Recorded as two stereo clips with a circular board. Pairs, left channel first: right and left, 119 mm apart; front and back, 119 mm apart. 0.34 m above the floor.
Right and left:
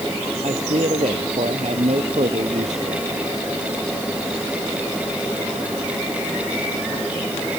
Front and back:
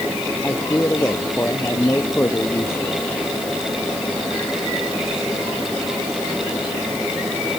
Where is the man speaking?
70° left.